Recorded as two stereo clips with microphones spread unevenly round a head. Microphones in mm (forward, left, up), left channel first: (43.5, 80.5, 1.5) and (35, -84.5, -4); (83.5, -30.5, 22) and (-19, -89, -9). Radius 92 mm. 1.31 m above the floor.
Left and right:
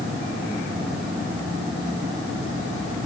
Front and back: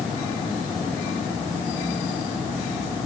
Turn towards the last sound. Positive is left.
No sound to turn to.